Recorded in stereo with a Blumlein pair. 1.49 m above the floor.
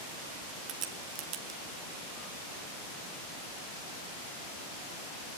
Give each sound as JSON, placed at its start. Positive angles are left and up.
{"t": 0.7, "sound": "a crack", "azimuth_deg": -40, "distance_m": 1.9}